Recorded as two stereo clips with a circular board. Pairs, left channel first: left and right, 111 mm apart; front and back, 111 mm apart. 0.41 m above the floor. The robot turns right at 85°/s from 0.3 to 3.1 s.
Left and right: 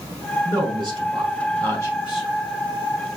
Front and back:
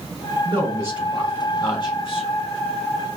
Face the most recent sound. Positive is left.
turn(degrees=75)